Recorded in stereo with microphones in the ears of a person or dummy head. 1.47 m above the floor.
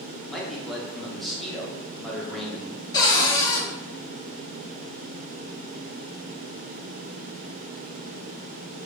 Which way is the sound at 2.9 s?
20° left (ahead or behind).